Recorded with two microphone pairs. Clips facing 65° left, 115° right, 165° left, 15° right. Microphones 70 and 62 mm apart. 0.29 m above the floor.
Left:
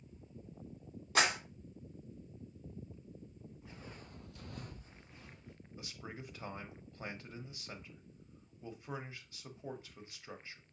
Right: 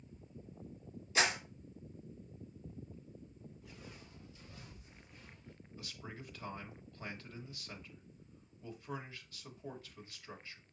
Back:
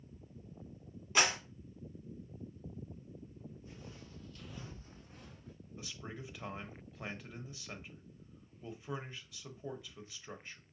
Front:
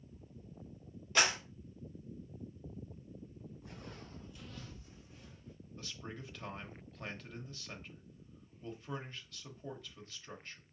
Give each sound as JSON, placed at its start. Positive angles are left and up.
{"t": 1.1, "sound": "a clap", "azimuth_deg": 90, "distance_m": 2.0}
{"t": 3.6, "sound": "footsteps", "azimuth_deg": 5, "distance_m": 0.9}
{"t": 5.8, "sound": "a man speaking", "azimuth_deg": 105, "distance_m": 0.9}